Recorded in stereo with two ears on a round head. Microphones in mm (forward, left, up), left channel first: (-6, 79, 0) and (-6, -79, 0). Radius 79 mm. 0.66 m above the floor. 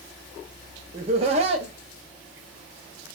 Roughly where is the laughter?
Right.